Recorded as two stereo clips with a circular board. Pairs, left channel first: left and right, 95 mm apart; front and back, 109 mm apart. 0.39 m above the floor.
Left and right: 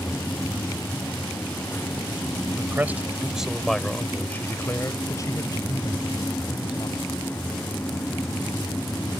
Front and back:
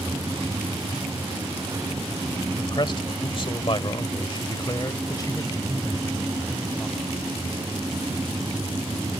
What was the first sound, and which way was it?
A man speaking, 30° right.